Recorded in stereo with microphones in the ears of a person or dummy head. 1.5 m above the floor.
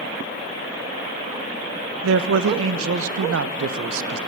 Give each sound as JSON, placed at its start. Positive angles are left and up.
{"t": 2.0, "sound": "a man speaking", "side_deg": -85, "distance_m": 1.2}